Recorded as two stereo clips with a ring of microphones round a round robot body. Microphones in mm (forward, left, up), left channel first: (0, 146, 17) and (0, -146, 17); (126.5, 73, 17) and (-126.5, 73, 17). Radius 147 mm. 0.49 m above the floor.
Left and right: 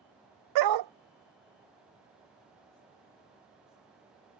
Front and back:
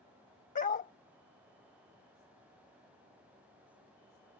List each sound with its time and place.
0.6 s a dog barking: 65° right